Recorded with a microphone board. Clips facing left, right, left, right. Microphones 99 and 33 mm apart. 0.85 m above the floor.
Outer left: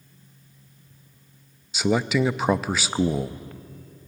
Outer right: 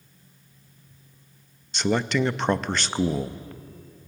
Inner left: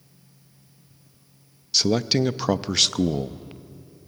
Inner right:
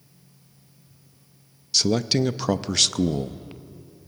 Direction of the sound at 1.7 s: 5° left (ahead or behind).